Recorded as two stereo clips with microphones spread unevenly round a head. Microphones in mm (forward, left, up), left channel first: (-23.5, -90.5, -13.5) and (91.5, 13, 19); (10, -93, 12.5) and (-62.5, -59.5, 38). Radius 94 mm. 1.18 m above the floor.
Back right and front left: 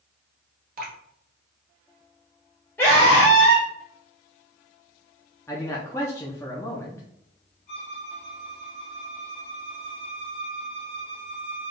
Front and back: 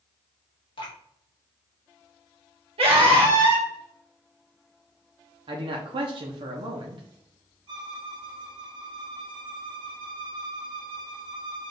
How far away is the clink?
I don't hear a clink.